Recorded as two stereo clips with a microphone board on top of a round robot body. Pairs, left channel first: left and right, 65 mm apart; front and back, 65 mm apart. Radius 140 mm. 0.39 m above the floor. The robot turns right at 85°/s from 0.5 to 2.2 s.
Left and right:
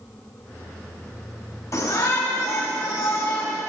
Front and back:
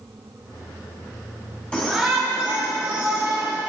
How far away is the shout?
About 2.5 m.